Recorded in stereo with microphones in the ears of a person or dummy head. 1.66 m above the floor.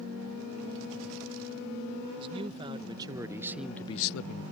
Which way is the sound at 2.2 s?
30° right (ahead or behind).